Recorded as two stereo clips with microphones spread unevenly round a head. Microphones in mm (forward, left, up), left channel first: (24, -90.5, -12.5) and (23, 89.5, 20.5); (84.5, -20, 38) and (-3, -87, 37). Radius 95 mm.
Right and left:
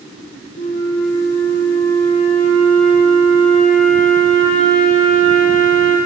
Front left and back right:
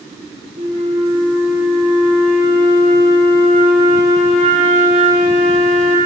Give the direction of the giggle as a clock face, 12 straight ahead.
No giggle in this recording.